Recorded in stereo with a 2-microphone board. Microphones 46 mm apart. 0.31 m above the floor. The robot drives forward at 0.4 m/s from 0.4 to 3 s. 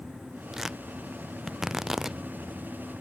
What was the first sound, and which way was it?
Tearing paper, 10° right (ahead or behind).